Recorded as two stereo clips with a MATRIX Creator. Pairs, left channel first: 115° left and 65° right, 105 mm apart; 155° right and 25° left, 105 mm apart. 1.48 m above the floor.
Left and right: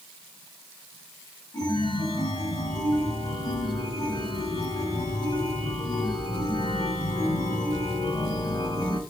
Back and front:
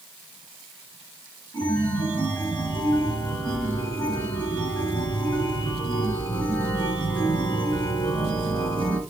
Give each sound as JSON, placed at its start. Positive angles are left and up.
{"t": 1.5, "sound": "a chime", "azimuth_deg": 160, "distance_m": 4.0}